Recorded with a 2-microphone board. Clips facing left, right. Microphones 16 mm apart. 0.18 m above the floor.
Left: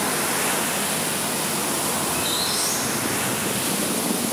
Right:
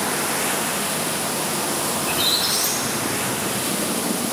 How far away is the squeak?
About 6.5 m.